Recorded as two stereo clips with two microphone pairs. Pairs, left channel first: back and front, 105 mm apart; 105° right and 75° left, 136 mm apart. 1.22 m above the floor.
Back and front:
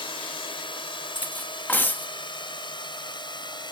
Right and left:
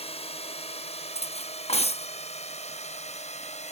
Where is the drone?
145° right; by 3.7 s 140° right.